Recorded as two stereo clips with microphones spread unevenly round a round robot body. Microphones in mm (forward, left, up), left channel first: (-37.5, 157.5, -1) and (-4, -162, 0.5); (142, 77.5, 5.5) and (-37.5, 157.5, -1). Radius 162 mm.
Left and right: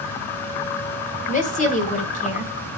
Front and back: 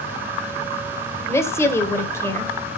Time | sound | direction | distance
1.3 | a woman speaking | 50° left | 1.5 m